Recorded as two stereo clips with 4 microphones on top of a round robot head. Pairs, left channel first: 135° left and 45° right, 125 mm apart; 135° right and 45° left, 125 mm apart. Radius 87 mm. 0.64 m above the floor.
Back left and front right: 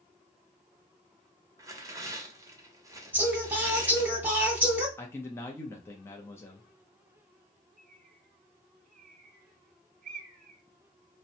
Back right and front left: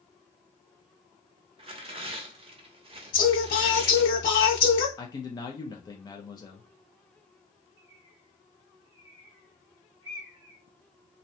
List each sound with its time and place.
1.6 s tearing paper: 15° left, 0.7 m
3.1 s singing: 125° right, 1.3 m
5.0 s a man speaking: 170° right, 0.6 m
7.8 s a bird: 10° right, 0.6 m